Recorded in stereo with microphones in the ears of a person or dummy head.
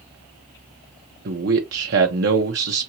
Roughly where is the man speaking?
Right.